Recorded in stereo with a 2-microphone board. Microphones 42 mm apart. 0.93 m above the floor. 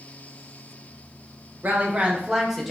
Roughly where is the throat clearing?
No throat clearing in this recording.